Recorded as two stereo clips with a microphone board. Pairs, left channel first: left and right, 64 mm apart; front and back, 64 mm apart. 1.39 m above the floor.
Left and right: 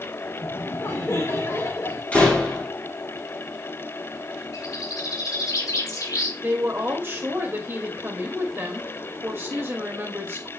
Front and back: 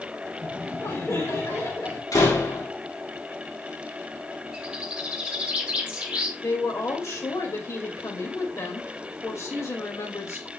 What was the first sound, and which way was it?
Laughter, 45° left.